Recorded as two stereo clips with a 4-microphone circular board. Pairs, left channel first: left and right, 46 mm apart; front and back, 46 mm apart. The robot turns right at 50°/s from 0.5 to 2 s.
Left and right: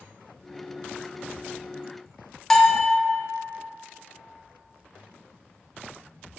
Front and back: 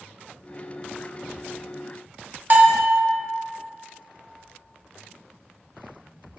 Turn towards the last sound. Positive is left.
turn(degrees=165)